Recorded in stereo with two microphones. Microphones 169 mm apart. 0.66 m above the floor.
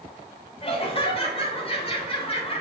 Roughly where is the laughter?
Left.